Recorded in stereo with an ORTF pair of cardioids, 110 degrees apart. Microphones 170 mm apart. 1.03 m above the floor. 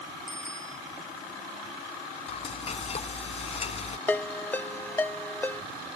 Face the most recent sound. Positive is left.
turn(degrees=10)